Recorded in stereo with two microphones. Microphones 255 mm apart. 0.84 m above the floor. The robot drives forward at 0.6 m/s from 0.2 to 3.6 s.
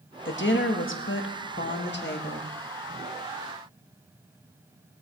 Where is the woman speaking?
45° left (ahead or behind), 1.4 m; by 2.5 s 40° left (ahead or behind), 1.6 m.